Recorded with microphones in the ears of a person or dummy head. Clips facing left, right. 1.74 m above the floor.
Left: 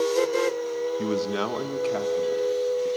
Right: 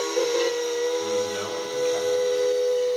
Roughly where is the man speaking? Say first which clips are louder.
Even; left.